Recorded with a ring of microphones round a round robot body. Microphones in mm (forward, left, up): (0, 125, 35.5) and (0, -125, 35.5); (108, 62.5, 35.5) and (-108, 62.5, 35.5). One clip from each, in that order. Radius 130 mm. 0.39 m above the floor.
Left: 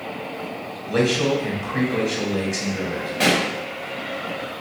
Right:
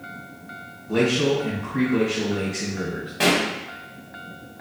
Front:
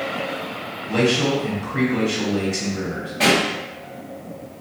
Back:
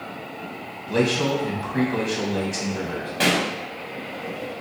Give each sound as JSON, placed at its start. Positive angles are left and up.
{"t": 0.9, "sound": "a man speaking", "azimuth_deg": 120, "distance_m": 2.5}
{"t": 3.2, "sound": "a pop", "azimuth_deg": 180, "distance_m": 1.4}